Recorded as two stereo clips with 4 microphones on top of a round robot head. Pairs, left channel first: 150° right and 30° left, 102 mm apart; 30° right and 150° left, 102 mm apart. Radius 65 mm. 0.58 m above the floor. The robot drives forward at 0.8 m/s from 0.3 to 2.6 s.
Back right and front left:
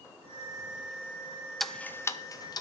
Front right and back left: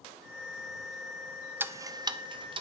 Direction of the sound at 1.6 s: 120° left.